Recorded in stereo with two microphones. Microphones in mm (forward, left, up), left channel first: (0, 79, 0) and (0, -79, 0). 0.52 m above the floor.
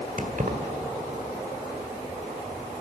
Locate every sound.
0.2 s keys jangling: 60° right (ahead or behind), 1.5 m